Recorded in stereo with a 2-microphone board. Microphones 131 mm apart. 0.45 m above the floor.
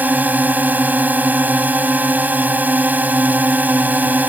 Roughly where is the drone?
Centre.